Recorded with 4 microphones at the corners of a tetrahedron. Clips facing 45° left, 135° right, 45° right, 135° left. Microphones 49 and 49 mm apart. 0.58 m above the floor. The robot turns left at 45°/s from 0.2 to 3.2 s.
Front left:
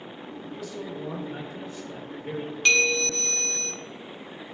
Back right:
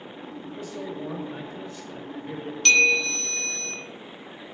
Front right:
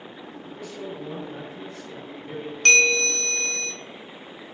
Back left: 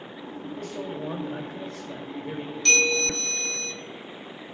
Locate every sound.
0.5 s a man speaking: 170° left, 2.5 m; by 2.5 s 75° left, 2.5 m
2.6 s a bell: 25° right, 1.4 m; by 3.7 s 50° right, 1.4 m